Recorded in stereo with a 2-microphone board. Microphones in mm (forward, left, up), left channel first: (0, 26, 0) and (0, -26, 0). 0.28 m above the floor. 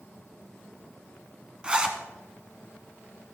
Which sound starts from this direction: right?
A zipper, at 1.6 s.